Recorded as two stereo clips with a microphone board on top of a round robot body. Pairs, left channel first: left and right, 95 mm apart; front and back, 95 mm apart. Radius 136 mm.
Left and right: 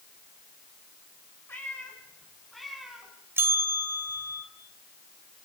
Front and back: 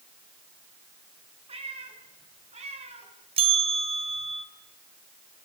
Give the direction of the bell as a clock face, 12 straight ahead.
5 o'clock.